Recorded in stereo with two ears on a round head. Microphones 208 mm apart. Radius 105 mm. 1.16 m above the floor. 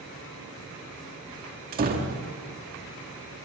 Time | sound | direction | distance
1.7 | a door slam | 40° right (ahead or behind) | 1.9 m